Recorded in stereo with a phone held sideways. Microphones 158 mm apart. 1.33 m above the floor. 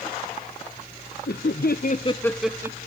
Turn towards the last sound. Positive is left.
turn(degrees=-20)  # may be behind; listen again after turning